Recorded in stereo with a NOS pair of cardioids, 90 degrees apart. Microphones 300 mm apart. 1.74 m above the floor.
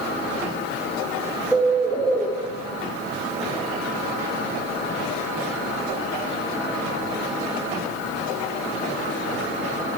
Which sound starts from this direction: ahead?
A bird, at 1.5 s.